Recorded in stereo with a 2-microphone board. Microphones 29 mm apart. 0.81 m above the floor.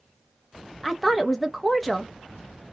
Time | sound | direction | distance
0.8 | a woman speaking | 5° left (ahead or behind) | 0.6 m